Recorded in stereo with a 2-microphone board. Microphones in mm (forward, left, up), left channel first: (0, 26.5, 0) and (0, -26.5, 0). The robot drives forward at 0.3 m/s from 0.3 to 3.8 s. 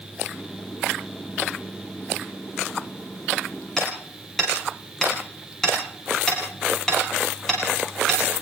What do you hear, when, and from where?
3.8 s hammering: 10° left (ahead or behind), 10 m